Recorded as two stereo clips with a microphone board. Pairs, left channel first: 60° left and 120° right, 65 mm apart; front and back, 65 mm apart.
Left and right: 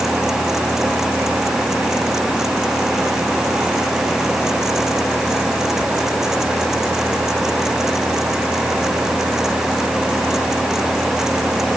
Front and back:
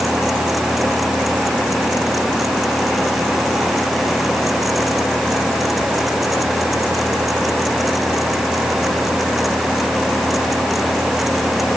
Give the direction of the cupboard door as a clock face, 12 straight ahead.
No cupboard door in this recording.